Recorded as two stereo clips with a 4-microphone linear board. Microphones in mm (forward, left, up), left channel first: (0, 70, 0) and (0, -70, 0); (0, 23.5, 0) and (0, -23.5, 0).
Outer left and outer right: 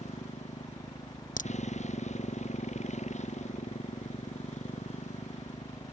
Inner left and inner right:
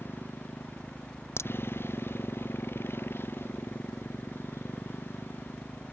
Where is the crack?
70° left (ahead or behind).